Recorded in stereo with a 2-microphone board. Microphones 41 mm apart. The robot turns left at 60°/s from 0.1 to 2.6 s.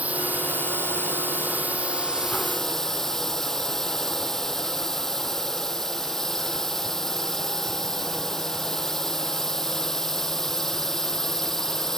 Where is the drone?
40° right; by 12.0 s 170° left.